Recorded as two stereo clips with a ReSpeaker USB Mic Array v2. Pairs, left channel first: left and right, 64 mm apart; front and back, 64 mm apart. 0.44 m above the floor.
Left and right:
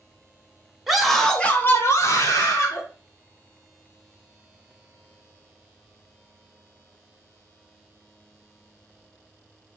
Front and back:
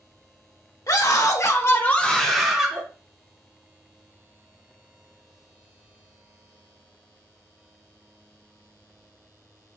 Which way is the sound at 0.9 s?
5° right.